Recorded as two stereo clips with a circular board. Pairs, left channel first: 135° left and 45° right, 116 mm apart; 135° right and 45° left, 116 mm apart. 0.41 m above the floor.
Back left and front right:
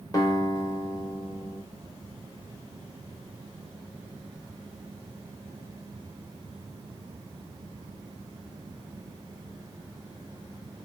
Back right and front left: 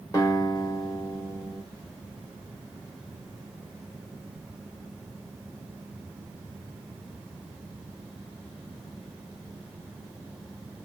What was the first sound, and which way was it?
A guitar, straight behind.